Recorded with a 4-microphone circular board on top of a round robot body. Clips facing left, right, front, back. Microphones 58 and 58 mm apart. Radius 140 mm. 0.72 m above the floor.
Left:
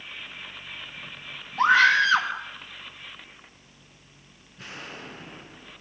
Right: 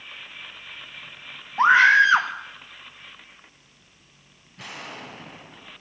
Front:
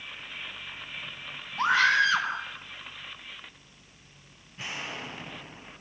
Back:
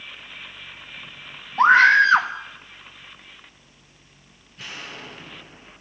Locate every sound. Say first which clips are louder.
1.6 s a scream: right 3 dB, back 9 dB; 150° right, 1.5 m
4.6 s an explosion: right 2 dB, even; 70° right, 4.5 m